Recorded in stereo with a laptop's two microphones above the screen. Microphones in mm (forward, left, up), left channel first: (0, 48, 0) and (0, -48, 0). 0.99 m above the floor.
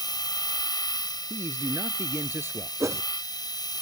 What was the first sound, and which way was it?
A machine running, 45° left (ahead or behind).